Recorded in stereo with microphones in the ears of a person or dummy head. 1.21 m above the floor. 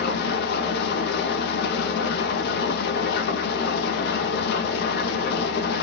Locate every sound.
0.0 s an engine running: 70° left (ahead or behind), 0.7 m